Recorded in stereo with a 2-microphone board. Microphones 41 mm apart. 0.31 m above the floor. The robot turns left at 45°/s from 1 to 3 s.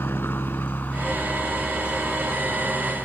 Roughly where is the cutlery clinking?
No cutlery clinking in this recording.